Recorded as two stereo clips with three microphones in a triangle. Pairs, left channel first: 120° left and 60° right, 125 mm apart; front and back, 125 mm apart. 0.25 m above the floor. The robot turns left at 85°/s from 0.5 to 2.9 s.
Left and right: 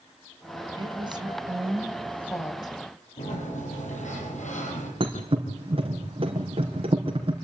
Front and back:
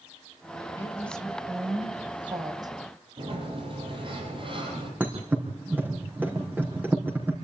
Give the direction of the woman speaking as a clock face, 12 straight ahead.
2 o'clock.